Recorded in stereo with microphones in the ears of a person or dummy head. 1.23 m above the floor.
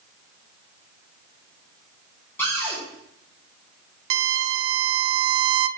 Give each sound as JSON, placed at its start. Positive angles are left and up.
{"t": 2.4, "sound": "a cupboard door", "side_deg": 20, "distance_m": 3.5}
{"t": 4.1, "sound": "a violin", "side_deg": -75, "distance_m": 0.6}